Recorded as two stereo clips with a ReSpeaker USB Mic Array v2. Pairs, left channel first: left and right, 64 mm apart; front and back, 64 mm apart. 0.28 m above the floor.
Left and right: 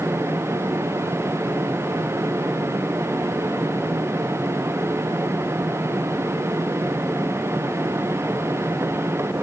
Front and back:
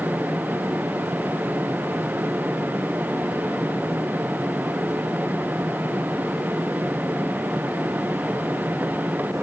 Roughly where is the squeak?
I don't hear a squeak.